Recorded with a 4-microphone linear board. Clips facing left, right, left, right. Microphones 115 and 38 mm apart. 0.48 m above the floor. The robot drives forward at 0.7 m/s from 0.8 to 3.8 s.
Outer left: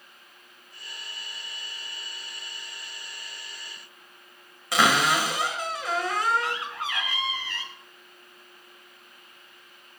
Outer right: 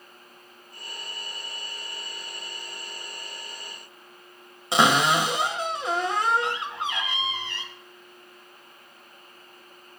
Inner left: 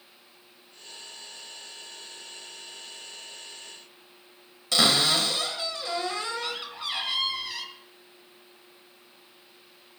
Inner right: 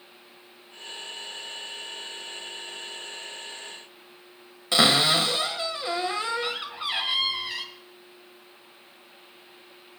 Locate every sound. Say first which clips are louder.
4.7 s a cupboard door: outer right 2 dB, inner right 2 dB; 25° right (ahead or behind), 1.5 m